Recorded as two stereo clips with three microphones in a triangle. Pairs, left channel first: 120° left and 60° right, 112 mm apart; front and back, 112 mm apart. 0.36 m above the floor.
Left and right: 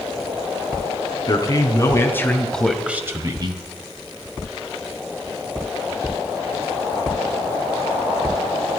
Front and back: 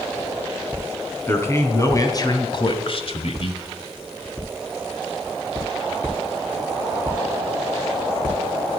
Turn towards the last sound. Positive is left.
turn(degrees=-25)